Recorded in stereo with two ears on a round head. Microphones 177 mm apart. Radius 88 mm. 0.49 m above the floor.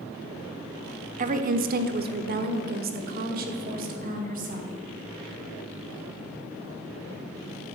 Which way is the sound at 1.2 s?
40° right (ahead or behind).